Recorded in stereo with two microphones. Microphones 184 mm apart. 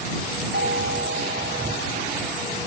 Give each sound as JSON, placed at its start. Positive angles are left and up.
{"t": 0.5, "sound": "a doorbell", "side_deg": -80}